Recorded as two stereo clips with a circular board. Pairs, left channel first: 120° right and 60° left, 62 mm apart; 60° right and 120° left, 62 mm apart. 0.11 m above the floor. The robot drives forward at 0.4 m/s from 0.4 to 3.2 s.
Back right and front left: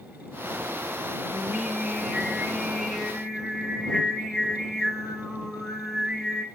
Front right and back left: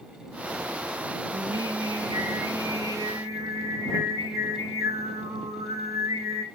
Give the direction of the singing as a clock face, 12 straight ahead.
7 o'clock.